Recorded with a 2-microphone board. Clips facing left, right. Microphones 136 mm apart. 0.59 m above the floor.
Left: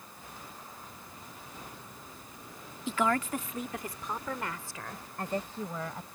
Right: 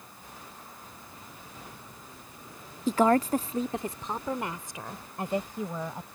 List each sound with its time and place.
2.9 s a woman speaking: 40° right (ahead or behind); by 6.1 s 15° right (ahead or behind)